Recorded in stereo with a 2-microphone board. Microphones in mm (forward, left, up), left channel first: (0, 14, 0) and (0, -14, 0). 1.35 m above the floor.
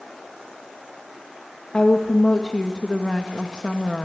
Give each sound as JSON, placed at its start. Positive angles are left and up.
{"t": 1.7, "sound": "a woman speaking", "side_deg": 30, "distance_m": 1.8}